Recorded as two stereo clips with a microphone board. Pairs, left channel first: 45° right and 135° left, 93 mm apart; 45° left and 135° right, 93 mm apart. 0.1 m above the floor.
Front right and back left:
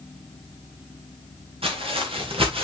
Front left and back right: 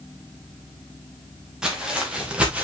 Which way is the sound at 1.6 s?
145° left.